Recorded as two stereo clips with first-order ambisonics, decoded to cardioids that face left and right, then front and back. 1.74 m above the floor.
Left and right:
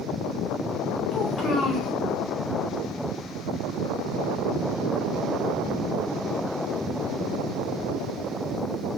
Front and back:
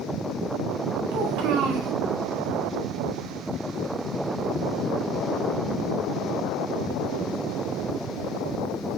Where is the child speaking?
150° left, 3 m.